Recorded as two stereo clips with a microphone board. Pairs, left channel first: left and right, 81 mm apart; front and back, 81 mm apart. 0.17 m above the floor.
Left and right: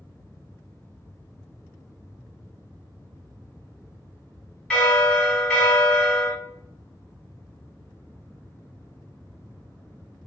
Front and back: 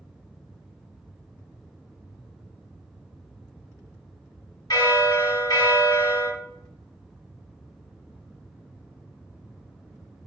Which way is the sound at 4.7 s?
10° left.